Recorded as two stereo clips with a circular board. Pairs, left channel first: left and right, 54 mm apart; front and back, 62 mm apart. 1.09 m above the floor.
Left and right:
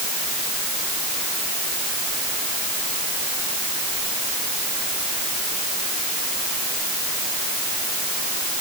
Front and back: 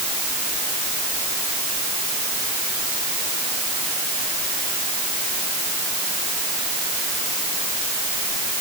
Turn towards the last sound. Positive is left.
No sound to turn to.